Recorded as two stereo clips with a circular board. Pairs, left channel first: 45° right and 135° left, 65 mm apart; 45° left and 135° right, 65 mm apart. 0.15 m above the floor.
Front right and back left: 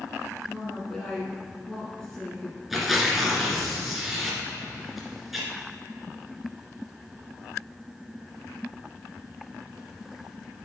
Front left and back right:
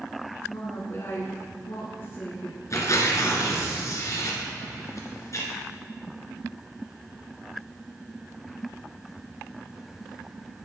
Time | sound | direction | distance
0.4 | a woman speaking | 35° left | 1.4 m
2.7 | tearing paper | 50° left | 2 m